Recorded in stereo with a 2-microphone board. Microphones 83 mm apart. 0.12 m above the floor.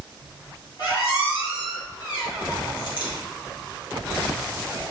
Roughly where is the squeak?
Left.